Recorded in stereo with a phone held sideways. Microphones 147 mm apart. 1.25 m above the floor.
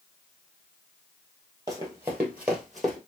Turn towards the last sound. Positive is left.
turn(degrees=5)  # may be behind; listen again after turning